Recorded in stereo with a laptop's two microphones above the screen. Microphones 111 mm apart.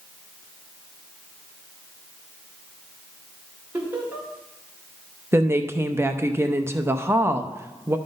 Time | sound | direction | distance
3.7 | laughter | 15° right (ahead or behind) | 4 m
5.3 | a woman speaking | 25° right (ahead or behind) | 0.7 m